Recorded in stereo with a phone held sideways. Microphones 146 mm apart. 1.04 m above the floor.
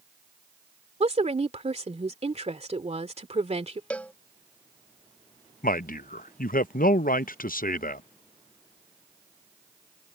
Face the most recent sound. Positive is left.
turn(degrees=75)  # may be behind; listen again after turning